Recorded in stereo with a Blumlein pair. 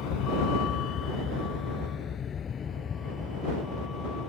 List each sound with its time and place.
0.0 s a vehicle: 35° left; by 4.3 s 20° left